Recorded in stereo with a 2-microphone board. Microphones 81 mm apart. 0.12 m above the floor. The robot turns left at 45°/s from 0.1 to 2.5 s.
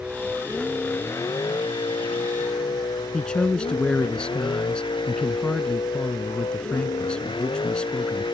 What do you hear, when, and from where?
0.0 s a vehicle: 170° right; by 8.3 s 85° left
3.1 s a man speaking: 10° left (ahead or behind)